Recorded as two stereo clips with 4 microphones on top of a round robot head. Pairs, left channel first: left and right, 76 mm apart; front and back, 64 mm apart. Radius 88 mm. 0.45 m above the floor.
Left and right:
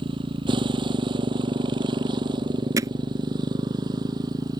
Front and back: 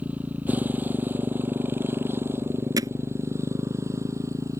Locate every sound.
0.0 s a motorcycle: 110° right; by 4.6 s 130° right
2.8 s hammering: 145° right